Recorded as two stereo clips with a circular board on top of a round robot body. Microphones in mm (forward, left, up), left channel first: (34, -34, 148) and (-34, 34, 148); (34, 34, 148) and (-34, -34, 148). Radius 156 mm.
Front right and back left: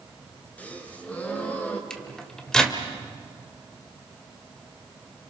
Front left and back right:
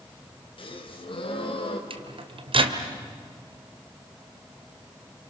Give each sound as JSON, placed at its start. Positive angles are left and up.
{"t": 0.6, "sound": "a gasp", "azimuth_deg": 30, "distance_m": 3.0}
{"t": 1.9, "sound": "a microwave", "azimuth_deg": -125, "distance_m": 2.0}